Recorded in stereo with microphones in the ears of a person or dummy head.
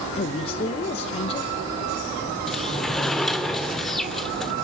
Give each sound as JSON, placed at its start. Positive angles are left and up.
{"t": 0.2, "sound": "a man speaking", "side_deg": 35, "distance_m": 1.2}
{"t": 2.5, "sound": "a sliding door", "side_deg": 5, "distance_m": 1.4}